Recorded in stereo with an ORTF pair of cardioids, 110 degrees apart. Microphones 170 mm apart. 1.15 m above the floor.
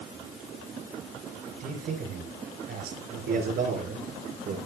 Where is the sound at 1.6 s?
65° right, 4 m.